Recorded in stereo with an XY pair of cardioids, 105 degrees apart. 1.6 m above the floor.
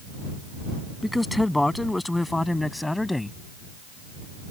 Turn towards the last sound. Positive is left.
turn(degrees=15)